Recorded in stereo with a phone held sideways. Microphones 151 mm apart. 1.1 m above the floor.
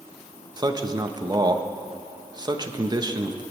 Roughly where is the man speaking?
Right.